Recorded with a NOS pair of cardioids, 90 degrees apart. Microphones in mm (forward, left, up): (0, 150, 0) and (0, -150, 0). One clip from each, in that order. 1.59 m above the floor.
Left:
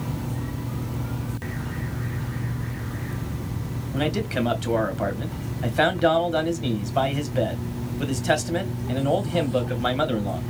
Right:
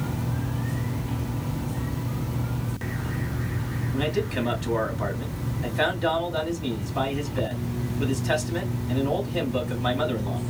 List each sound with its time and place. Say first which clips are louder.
3.9 s a man speaking: left 1 dB; 45° left, 2 m